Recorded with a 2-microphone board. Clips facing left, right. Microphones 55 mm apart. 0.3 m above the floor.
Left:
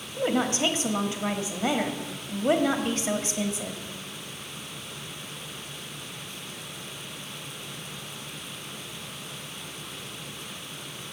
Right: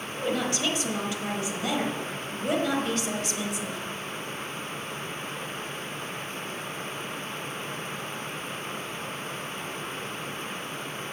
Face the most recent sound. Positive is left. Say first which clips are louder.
# left 3 dB
turn(degrees=30)  # may be behind; listen again after turning